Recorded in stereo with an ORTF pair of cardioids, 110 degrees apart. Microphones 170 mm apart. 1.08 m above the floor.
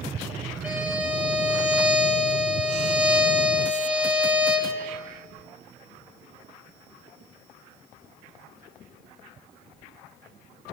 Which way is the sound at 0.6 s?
5° right.